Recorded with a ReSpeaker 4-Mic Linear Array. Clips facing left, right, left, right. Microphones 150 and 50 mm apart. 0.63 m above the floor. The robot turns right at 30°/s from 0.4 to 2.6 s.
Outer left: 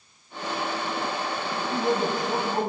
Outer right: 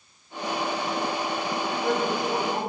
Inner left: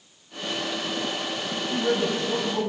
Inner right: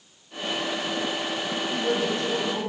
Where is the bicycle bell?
I don't hear a bicycle bell.